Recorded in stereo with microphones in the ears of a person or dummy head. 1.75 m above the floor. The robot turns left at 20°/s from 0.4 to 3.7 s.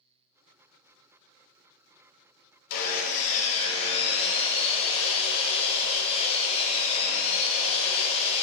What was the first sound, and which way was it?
Sawing, 50° left (ahead or behind).